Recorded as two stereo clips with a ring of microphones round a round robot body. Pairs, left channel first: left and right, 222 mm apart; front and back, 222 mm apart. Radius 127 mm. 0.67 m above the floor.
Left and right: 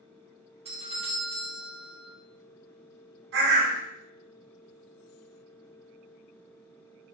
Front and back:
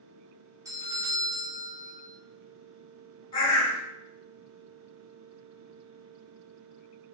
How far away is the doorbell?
About 1.1 m.